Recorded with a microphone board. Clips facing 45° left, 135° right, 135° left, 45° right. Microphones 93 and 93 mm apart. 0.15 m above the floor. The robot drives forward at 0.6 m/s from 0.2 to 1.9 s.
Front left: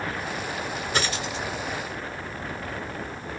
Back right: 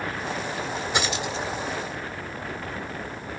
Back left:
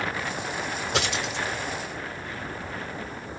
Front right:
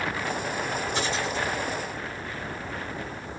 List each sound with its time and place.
0.9 s a dropped coin: 145° left, 1.2 m; by 1.4 s 155° left, 1.5 m